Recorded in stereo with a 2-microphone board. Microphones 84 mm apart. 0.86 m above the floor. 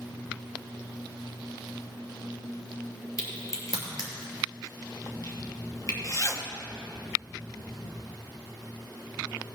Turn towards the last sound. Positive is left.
turn(degrees=40)  # may be behind; listen again after turning